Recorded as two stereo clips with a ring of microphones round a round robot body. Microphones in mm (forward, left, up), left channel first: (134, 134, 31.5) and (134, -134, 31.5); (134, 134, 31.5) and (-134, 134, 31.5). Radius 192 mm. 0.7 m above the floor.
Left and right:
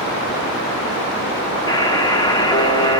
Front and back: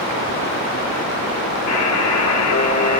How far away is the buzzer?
About 1.3 m.